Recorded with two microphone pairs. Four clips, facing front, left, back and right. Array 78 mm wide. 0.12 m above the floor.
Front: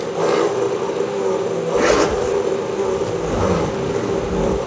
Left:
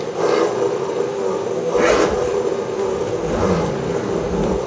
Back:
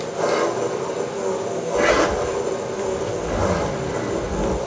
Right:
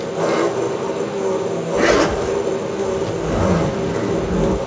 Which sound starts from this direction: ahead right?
A zipper, at 1.7 s.